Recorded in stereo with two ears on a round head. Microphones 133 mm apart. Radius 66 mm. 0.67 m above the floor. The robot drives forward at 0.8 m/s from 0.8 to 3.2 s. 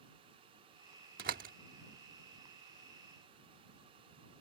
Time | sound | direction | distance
1.2 | a door slam | 65° right (ahead or behind) | ?